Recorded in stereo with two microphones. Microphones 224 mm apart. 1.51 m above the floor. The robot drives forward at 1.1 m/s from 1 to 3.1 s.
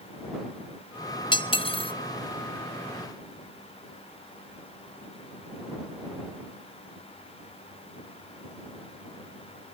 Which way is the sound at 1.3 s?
20° left (ahead or behind).